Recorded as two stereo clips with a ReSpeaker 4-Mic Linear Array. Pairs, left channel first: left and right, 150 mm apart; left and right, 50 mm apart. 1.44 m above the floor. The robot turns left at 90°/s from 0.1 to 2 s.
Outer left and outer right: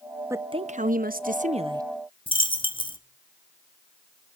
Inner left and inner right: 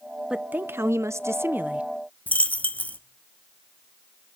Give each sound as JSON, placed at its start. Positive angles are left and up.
{"t": 0.3, "sound": "a woman speaking", "azimuth_deg": -20, "distance_m": 0.7}
{"t": 2.3, "sound": "a dropped coin", "side_deg": 35, "distance_m": 1.0}